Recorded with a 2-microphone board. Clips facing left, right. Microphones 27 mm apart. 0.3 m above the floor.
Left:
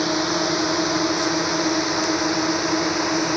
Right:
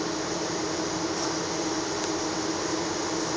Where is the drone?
65° left (ahead or behind); by 3.4 s 60° left (ahead or behind).